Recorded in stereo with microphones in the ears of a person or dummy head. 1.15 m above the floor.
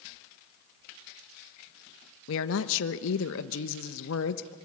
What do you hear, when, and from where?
2.3 s a woman speaking: 65° left (ahead or behind), 1.0 m